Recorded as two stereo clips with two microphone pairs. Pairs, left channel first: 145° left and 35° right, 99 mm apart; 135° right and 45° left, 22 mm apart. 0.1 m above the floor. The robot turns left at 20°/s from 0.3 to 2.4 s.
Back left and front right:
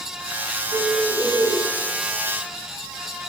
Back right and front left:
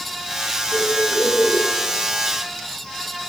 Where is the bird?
30° right, 5 m; by 1.6 s 50° right, 5 m.